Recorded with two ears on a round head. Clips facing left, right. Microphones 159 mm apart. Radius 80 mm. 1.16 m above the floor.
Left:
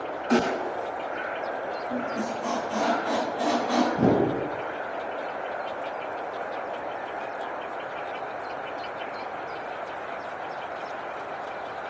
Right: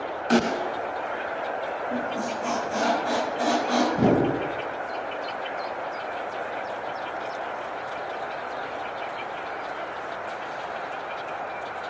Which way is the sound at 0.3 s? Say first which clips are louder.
Right 1 dB; 45° right (ahead or behind).